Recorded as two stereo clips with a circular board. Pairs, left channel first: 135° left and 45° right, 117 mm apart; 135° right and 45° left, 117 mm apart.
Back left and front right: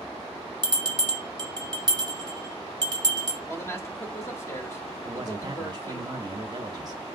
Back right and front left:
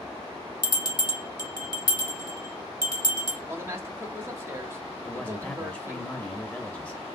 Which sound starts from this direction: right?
A bell, at 0.6 s.